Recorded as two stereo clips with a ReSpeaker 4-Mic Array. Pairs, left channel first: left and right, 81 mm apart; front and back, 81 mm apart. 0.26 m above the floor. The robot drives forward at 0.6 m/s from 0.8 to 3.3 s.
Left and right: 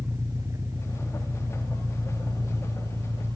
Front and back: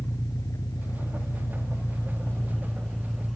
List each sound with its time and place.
0.0 s an engine running: 45° right, 2 m; by 3.4 s 85° right, 1.6 m